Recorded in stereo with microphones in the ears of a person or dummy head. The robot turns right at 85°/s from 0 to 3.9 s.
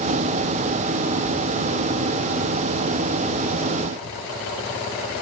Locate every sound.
Only background noise.